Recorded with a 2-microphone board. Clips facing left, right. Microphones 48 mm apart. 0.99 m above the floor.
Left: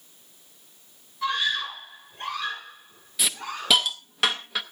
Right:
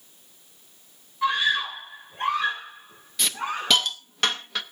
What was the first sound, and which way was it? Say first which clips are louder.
A scream: right 3 dB; 20° right (ahead or behind).